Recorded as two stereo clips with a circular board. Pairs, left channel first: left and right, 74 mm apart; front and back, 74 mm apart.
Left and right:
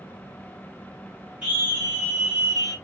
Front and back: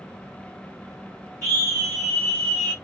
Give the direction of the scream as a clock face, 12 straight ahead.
1 o'clock.